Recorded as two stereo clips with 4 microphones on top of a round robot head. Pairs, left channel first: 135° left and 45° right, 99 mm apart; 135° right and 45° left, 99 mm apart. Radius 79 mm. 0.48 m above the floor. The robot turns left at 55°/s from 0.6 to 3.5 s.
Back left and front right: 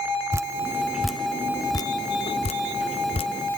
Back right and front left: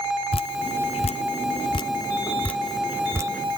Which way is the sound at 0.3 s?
110° right.